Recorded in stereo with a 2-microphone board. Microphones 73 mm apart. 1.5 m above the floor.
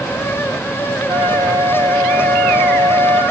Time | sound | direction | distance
1.1 | a flute | 70° right (ahead or behind) | 2 m